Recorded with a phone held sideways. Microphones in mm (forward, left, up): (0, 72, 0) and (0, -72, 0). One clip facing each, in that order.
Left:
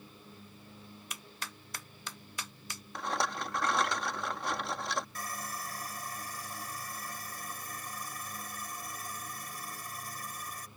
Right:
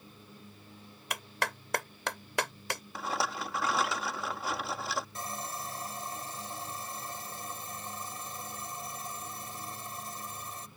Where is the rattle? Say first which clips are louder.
Left 1 dB; 5° right (ahead or behind).